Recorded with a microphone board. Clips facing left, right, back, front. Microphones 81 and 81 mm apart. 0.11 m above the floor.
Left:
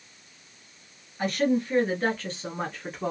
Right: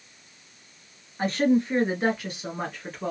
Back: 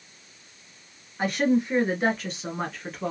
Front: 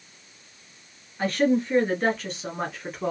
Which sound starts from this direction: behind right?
A woman speaking, at 1.2 s.